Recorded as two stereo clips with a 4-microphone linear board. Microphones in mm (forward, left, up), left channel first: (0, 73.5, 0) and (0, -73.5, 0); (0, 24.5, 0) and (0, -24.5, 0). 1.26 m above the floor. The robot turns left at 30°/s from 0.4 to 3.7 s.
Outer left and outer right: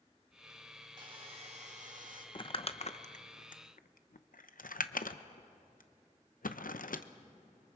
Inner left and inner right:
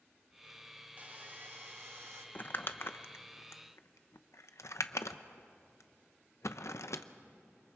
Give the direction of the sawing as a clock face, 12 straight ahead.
1 o'clock.